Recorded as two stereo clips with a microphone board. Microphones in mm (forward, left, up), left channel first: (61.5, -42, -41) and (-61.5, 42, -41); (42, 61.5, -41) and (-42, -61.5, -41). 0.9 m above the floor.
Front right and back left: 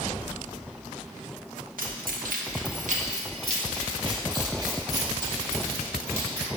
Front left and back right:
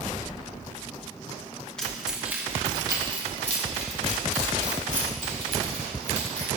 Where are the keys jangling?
140° left, 1.0 m; by 6.5 s 145° right, 2.5 m.